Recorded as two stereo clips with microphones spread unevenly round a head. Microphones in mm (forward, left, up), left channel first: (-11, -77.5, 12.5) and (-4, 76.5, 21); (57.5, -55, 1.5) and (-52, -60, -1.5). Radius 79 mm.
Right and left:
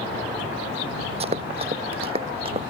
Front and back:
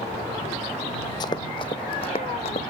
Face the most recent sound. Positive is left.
turn(degrees=35)